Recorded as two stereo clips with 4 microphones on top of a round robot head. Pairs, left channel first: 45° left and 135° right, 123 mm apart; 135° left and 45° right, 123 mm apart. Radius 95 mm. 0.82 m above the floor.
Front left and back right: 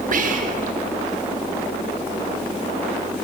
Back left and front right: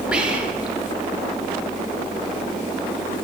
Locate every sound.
0.1 s whispering: 130° right, 1.1 m